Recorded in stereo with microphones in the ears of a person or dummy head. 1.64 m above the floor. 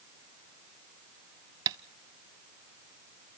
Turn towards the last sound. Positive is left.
turn(degrees=-20)  # may be behind; listen again after turning